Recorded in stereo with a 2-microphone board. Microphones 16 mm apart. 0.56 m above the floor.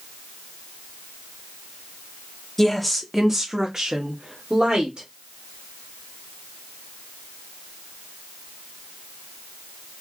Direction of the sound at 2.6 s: 15° left (ahead or behind).